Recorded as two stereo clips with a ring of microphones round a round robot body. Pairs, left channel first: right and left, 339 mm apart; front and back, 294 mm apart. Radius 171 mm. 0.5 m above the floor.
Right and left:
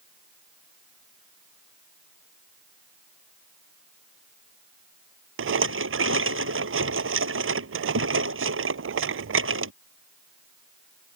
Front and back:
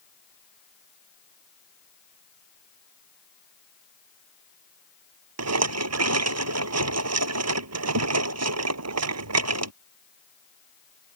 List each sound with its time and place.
5.4 s a rattle: 145° left